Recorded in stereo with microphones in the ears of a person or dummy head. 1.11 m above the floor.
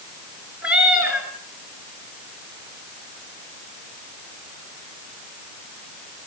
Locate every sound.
0.6 s a cat meowing: 5° right (ahead or behind), 6 m